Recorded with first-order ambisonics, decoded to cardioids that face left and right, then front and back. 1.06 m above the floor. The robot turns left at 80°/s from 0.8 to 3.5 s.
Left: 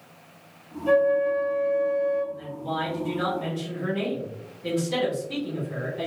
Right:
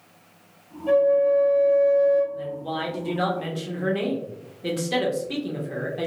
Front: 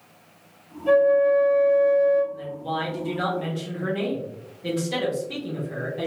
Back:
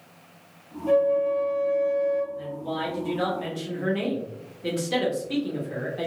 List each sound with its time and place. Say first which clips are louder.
0.9 s a flute: right 2 dB, front 4 dB; 40° left, 1.4 m; by 2.2 s 65° right, 1.4 m
2.3 s a woman speaking: right 1 dB, front 2 dB; 10° right, 0.7 m; by 6.1 s 105° right, 0.7 m